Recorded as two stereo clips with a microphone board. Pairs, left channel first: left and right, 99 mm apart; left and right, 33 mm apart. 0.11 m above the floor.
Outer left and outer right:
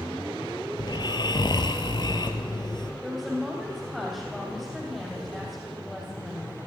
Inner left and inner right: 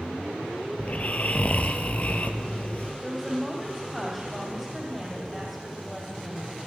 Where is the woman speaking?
Centre (ahead or behind), 4 m.